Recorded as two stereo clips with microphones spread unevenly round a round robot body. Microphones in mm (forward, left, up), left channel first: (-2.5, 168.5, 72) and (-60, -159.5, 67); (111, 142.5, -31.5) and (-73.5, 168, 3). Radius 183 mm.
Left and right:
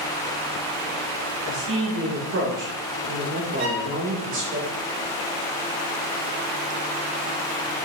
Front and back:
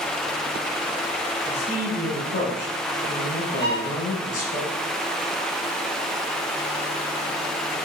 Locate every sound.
1.5 s a man speaking: 55° right, 1.6 m
3.6 s a violin: 95° right, 2.5 m